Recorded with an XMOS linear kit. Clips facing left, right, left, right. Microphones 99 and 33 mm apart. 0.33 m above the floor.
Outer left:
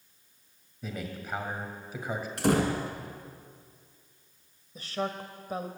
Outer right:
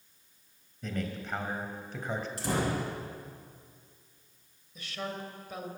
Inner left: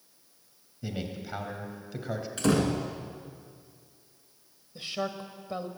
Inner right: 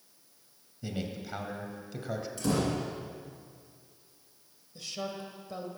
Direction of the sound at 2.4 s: 65° left (ahead or behind).